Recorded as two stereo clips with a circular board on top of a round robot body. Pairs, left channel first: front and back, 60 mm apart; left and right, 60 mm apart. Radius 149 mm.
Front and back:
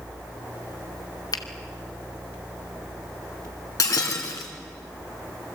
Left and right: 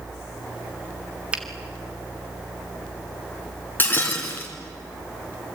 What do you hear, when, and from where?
1.3 s a finger snap: 15° right, 1.9 m
3.8 s breaking glass: 30° left, 3 m